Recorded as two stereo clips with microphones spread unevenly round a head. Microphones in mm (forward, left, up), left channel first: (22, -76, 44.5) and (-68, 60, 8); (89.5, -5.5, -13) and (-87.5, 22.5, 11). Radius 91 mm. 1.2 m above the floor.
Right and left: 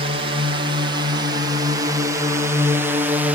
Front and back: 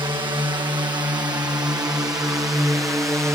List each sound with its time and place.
0.0 s a drone: 110° left; by 3.4 s 100° left